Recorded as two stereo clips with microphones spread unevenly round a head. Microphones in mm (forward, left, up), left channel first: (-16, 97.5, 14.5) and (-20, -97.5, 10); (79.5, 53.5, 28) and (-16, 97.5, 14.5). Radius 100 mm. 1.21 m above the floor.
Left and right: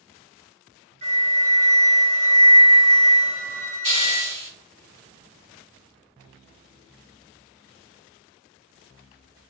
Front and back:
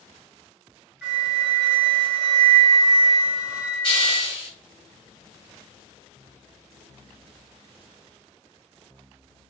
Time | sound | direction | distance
1.0 | a flute | 125° right | 1.0 m
3.8 | a hiss | 40° right | 1.5 m